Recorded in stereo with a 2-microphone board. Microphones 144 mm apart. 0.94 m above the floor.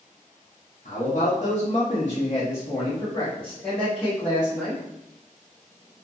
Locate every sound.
0.8 s a man speaking: 60° left (ahead or behind), 1.2 m; by 4.8 s centre (ahead or behind), 2 m